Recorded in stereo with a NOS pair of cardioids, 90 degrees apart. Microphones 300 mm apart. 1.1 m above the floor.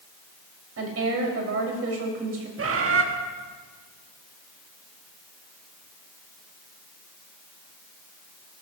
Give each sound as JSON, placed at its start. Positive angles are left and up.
{"t": 0.8, "sound": "a woman speaking", "azimuth_deg": -50, "distance_m": 4.5}
{"t": 2.6, "sound": "a bird", "azimuth_deg": -45, "distance_m": 1.6}